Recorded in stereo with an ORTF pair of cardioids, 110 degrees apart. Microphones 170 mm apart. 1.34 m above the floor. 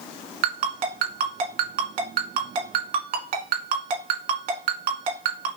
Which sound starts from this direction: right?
A ringtone, at 0.4 s.